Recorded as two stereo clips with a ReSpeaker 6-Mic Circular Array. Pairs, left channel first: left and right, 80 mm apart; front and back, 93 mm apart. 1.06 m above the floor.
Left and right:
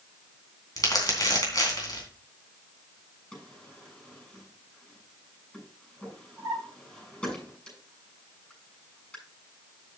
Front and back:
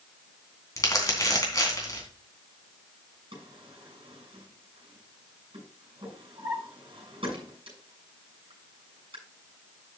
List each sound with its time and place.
0.8 s crumpling: 50° left, 3 m
3.3 s a drawer: 170° left, 7 m